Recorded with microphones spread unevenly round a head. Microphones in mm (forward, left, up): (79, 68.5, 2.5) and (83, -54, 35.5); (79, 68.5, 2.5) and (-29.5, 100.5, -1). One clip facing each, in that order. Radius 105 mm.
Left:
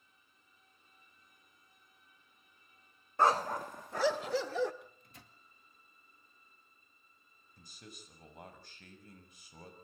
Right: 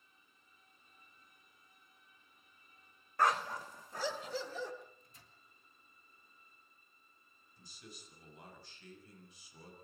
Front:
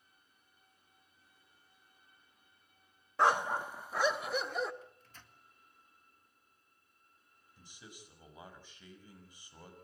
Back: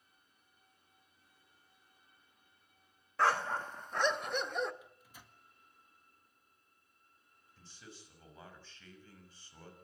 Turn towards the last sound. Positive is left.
turn(degrees=60)